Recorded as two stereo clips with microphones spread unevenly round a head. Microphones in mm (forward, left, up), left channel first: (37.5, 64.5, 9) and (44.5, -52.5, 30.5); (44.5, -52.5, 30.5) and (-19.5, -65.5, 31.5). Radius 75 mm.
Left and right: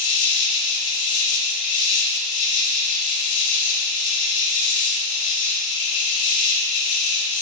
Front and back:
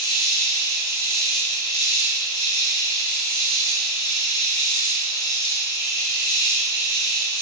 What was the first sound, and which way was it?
An insect, 80° left.